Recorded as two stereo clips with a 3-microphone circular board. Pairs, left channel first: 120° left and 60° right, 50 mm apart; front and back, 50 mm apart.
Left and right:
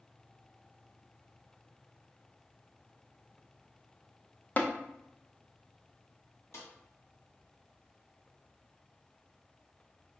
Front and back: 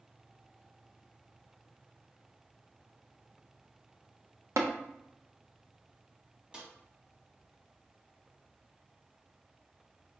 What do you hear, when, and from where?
4.6 s tapping: 175° left, 0.6 m
6.5 s a snare drum: 110° left, 1.2 m